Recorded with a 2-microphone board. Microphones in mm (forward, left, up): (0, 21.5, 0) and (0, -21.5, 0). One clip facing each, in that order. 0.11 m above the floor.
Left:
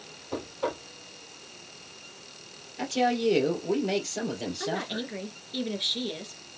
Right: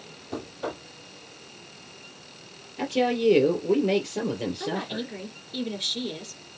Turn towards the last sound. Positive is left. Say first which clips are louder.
# right 1 dB
turn(degrees=15)  # may be behind; listen again after turning